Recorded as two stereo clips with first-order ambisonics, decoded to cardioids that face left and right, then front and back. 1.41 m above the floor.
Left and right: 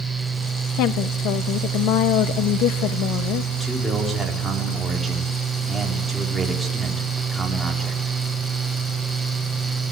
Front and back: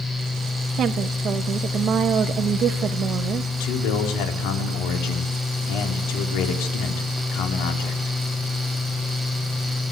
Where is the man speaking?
5° right, 4 m.